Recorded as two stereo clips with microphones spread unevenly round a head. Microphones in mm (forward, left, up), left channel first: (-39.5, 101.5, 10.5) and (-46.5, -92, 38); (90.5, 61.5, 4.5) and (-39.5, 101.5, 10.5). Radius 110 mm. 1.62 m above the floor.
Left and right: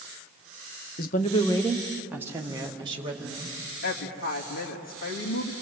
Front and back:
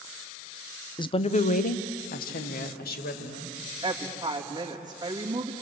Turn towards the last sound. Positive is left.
turn(degrees=100)